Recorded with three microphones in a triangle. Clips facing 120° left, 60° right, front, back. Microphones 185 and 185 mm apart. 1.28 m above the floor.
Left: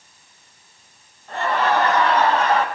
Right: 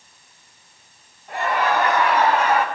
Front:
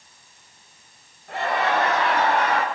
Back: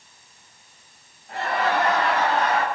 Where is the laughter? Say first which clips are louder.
Left 1 dB, front 1 dB; 20° left, 6.5 m.